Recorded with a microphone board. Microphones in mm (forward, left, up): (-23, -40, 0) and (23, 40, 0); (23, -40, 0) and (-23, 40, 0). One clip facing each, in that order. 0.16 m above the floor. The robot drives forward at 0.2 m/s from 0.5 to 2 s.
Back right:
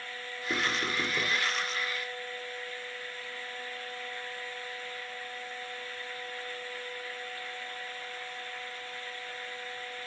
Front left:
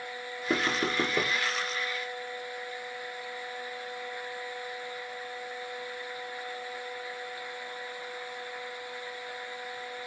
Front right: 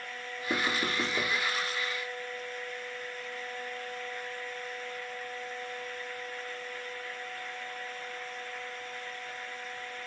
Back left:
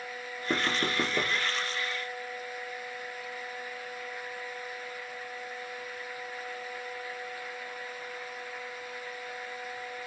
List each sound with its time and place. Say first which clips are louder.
0.5 s knocking: front left 3 dB, back left 1 dB; 90° left, 3.5 m